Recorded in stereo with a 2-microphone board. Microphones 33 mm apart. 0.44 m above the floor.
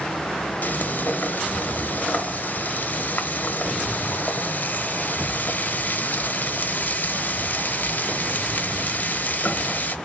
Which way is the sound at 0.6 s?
55° left (ahead or behind).